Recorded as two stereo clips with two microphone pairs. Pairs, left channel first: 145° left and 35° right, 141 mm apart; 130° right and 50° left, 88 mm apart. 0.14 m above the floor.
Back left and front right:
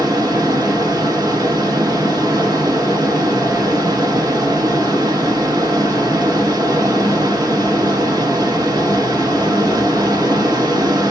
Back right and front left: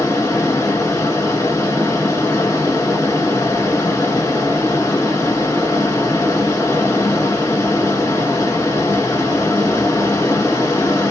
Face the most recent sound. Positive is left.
turn(degrees=-85)